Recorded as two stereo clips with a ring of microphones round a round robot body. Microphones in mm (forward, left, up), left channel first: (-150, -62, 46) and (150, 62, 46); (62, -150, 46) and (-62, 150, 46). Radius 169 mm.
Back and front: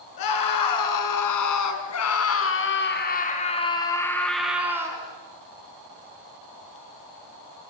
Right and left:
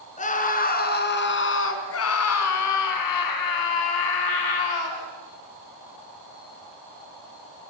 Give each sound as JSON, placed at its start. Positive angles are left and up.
{"t": 0.2, "sound": "a scream", "azimuth_deg": -135, "distance_m": 5.0}